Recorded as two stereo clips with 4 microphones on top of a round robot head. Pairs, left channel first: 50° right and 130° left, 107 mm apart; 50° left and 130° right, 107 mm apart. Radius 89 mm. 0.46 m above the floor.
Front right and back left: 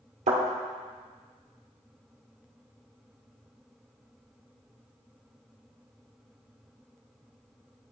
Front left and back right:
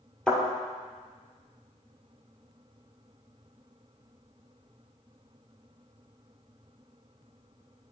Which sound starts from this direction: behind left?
A thud, at 0.3 s.